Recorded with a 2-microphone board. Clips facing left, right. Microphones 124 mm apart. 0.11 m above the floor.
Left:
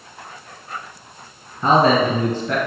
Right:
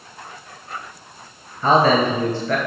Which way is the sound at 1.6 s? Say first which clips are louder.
Even; 20° left (ahead or behind).